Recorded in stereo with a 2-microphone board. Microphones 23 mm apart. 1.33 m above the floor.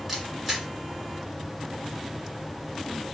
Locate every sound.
0.1 s a camera shutter: 10° right (ahead or behind), 2 m